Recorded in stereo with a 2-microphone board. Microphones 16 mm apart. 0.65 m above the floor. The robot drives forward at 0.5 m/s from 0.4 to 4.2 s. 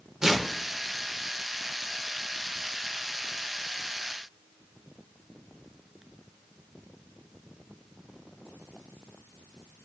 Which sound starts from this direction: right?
Tearing paper, at 0.2 s.